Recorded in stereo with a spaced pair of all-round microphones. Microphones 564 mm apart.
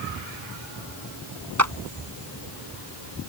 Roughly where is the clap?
Right.